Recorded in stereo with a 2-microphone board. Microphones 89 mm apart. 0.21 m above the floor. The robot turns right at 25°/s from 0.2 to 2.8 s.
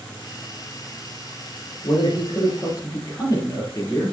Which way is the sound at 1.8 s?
60° left (ahead or behind).